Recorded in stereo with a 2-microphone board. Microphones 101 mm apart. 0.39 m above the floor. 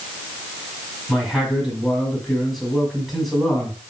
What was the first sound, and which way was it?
A man speaking, centre (ahead or behind).